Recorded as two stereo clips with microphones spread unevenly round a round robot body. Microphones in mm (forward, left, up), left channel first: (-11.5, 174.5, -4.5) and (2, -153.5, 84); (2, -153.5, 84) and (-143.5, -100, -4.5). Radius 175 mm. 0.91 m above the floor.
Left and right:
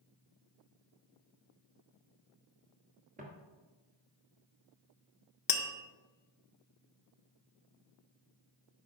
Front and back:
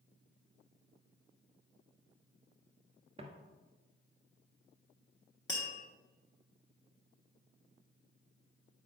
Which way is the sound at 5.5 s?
65° left.